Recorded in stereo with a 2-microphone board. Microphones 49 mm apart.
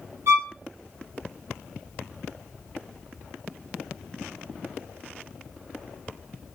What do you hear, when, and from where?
0.3 s a violin: 60° right (ahead or behind), 0.6 m